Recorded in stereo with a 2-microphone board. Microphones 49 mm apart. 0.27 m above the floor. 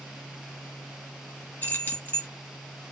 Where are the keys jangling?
40° left (ahead or behind), 1.3 m.